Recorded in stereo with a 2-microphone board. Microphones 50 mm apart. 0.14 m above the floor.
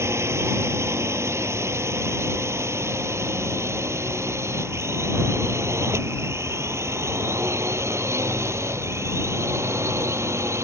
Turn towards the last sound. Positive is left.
turn(degrees=-65)  # may be behind; listen again after turning